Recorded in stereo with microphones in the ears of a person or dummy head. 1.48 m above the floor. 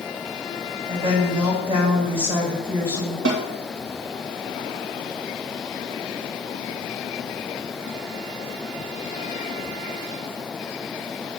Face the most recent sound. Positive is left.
turn(degrees=-65)  # may be behind; listen again after turning